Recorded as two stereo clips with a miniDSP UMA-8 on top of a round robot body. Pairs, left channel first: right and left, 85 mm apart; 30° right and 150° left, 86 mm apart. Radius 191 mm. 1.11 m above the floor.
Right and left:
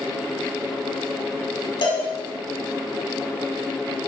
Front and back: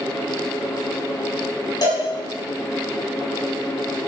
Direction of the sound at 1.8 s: 75° right.